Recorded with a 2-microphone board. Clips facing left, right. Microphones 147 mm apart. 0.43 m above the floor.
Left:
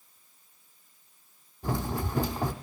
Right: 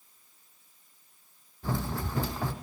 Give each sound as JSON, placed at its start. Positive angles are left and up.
{"t": 1.6, "sound": "running footsteps", "side_deg": 15, "distance_m": 1.0}